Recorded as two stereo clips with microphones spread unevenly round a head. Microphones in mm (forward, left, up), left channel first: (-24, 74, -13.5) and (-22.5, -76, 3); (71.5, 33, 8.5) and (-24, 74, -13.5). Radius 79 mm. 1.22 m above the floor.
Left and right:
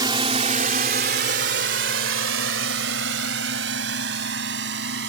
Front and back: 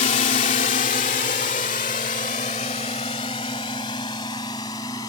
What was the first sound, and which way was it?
A drone, 25° right.